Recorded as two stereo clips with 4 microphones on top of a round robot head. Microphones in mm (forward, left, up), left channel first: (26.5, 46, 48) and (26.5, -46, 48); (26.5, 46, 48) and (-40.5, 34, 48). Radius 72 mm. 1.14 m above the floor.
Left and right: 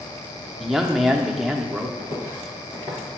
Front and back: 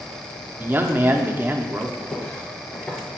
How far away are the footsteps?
About 1.7 m.